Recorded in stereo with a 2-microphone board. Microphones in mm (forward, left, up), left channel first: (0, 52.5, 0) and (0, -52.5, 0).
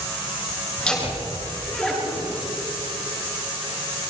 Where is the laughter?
5° left (ahead or behind), 10 m; by 2.4 s centre (ahead or behind), 10 m.